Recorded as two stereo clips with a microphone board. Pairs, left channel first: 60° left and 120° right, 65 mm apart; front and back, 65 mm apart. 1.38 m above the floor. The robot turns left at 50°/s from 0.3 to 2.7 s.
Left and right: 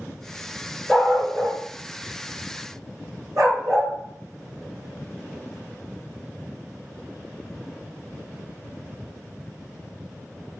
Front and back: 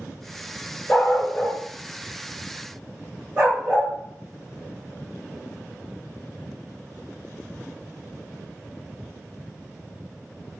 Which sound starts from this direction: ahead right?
A dog barking, at 0.9 s.